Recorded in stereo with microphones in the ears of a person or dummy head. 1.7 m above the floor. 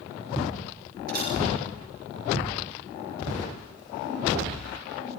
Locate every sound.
1.1 s a camera shutter: 55° right (ahead or behind), 10 m